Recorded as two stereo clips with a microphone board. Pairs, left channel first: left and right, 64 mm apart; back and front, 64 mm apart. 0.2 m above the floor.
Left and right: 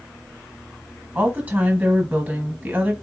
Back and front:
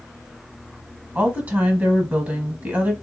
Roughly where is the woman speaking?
Ahead right.